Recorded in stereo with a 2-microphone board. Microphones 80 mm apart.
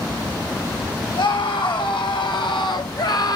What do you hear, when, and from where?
1.1 s a scream: 85° left, 5 m; by 3.4 s 55° left (ahead or behind), 2 m